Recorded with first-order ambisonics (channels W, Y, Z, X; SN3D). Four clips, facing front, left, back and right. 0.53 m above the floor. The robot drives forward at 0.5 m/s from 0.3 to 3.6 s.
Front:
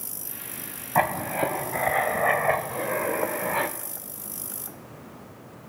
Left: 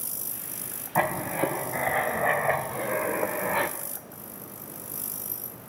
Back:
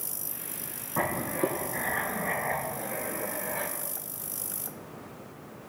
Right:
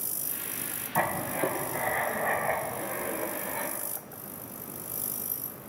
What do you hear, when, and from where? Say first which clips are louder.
0.9 s writing: left 3 dB, front 5 dB; 15° left, 1.9 m; by 3.8 s 40° left, 0.7 m